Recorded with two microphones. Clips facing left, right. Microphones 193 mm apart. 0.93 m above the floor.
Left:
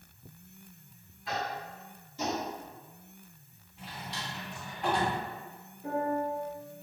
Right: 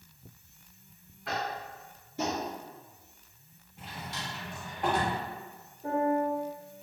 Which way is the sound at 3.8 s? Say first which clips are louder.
Right 1 dB; 50° right (ahead or behind).